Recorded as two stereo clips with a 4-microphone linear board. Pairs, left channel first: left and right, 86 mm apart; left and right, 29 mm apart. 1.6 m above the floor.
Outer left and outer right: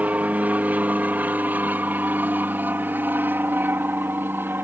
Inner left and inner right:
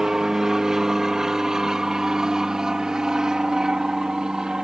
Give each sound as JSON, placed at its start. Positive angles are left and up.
{"t": 0.0, "sound": "an aircraft", "side_deg": -15}